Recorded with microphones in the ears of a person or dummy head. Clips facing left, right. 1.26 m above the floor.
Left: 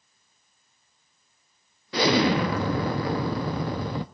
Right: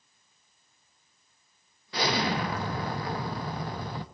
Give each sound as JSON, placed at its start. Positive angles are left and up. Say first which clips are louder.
{"t": 1.9, "sound": "an explosion", "louder": "left 7 dB", "side_deg": 60, "distance_m": 0.5}